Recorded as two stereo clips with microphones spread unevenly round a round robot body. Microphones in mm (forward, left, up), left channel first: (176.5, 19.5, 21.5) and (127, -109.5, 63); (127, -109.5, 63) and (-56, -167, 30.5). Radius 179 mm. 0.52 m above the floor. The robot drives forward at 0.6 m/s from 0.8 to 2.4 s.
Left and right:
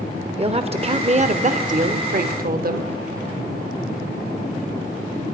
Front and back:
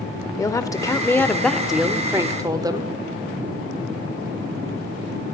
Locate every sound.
0.4 s a woman speaking: 60° right, 1.7 m; by 2.9 s 95° right, 1.5 m